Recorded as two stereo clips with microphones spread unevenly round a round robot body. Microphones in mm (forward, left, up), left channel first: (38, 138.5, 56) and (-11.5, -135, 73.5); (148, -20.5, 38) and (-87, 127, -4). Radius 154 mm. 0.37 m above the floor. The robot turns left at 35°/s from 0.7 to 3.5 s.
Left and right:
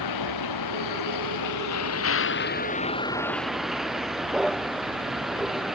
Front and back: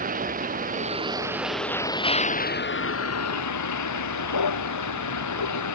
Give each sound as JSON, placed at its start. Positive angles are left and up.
{"t": 0.0, "sound": "a vehicle", "azimuth_deg": 85}